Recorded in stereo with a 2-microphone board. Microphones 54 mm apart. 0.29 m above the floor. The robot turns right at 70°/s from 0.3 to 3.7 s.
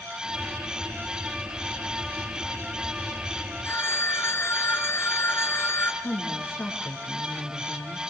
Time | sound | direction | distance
3.6 | a phone ringing | 50° left (ahead or behind) | 2.5 m
6.0 | a woman speaking | 40° left (ahead or behind) | 5.5 m